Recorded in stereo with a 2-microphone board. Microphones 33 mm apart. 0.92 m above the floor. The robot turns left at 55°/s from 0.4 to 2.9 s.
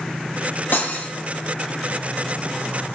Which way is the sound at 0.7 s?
70° left (ahead or behind).